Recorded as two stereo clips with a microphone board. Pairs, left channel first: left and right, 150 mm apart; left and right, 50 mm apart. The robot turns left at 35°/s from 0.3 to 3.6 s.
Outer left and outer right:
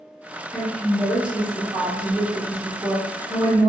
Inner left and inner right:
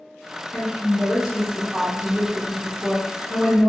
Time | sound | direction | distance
0.5 | a woman speaking | 5° left (ahead or behind) | 0.7 m